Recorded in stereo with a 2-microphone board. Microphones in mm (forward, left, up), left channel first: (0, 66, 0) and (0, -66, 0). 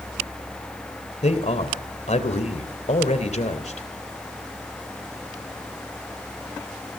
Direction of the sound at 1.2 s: 60° left (ahead or behind).